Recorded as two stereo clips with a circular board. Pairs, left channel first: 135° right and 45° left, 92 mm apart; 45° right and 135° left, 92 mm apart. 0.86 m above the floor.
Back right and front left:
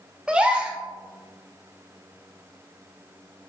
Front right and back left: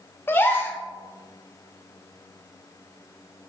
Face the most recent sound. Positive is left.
turn(degrees=-15)